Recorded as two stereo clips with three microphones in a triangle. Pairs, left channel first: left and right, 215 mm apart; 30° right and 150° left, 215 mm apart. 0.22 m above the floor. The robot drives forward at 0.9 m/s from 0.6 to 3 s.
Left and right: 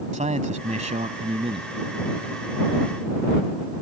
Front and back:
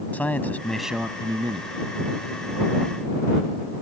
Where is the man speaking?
110° right; by 1.7 s 150° right.